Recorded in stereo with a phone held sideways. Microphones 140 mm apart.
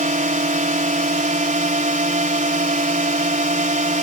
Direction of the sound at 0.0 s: 65° right (ahead or behind).